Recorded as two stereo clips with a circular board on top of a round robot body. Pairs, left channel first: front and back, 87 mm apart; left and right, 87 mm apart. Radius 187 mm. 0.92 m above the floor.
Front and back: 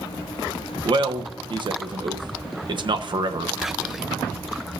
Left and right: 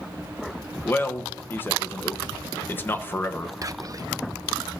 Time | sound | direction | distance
0.8 | a man speaking | 155° left | 1.2 m
3.6 | whispering | 95° right | 0.9 m